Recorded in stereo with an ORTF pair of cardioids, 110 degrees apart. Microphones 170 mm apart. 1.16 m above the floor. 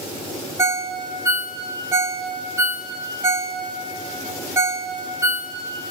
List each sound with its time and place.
0.6 s a ringtone: 15° right, 1.5 m